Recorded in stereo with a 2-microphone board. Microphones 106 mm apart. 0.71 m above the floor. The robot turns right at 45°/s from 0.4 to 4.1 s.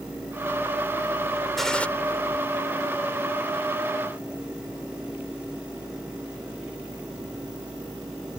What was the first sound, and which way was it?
A gunshot, centre (ahead or behind).